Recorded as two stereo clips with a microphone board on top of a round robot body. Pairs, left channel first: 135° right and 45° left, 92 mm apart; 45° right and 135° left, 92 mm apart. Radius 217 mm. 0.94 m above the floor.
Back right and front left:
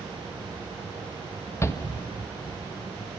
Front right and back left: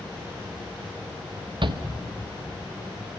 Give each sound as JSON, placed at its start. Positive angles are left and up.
{"t": 1.6, "sound": "a shout", "azimuth_deg": 165, "distance_m": 1.7}